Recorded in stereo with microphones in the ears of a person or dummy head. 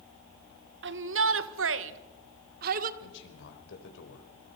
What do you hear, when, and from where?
0.8 s a shout: 50° right (ahead or behind), 1.2 m; by 2.9 s 40° right (ahead or behind), 1.3 m
3.0 s a man speaking: 70° left (ahead or behind), 4.5 m